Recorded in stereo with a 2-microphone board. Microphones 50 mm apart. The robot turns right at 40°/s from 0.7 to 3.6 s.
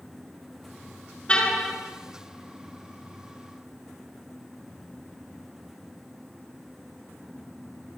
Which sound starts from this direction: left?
A car horn, at 1.3 s.